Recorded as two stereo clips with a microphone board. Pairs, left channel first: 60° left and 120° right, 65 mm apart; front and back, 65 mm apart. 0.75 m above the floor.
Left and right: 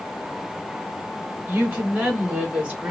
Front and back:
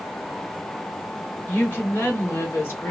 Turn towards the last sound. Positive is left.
turn(degrees=-50)